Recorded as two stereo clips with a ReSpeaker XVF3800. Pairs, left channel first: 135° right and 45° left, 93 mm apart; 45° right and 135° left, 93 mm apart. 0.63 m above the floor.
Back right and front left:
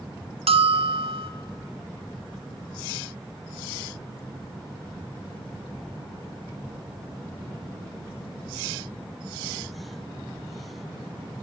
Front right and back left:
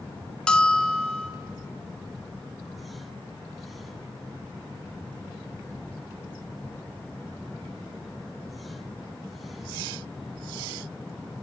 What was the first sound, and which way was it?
A bell, 35° left.